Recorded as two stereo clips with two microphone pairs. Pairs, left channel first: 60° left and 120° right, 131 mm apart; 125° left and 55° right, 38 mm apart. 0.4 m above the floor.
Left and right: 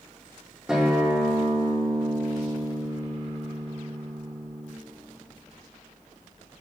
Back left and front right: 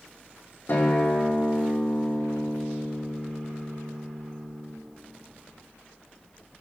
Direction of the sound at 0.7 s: 150° left.